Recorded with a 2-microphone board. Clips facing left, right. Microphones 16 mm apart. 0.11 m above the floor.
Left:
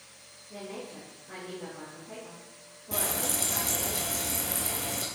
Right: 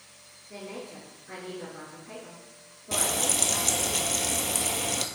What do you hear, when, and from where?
0.5 s a woman speaking: 40° right (ahead or behind), 1.7 m
2.9 s frying: 50° right (ahead or behind), 0.6 m